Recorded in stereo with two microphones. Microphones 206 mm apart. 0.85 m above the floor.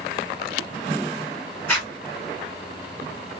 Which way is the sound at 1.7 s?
5° left (ahead or behind).